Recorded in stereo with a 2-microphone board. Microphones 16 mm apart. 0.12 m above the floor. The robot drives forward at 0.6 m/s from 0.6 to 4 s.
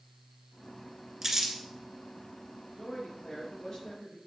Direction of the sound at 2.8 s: 55° left (ahead or behind).